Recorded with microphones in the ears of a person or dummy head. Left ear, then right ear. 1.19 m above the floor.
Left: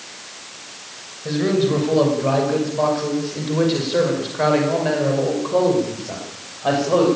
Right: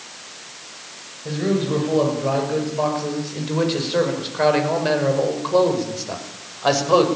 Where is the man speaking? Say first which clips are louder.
Left 3 dB; 10° left (ahead or behind), 6.5 m; by 7.0 s 50° right (ahead or behind), 6 m.